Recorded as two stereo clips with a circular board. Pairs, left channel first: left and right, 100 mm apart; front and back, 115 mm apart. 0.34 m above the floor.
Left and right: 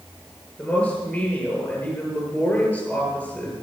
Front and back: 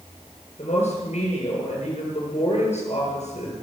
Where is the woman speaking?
10° left, 7 m.